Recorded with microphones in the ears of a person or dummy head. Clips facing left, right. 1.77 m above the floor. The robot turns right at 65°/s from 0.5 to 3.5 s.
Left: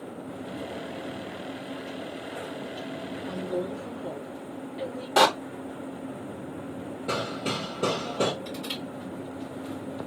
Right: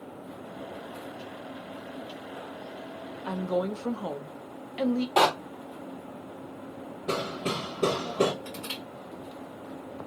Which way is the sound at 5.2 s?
15° left (ahead or behind).